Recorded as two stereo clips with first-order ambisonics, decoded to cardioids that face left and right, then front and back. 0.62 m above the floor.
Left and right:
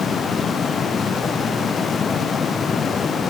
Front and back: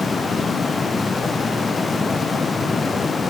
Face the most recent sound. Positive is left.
No sound to turn to.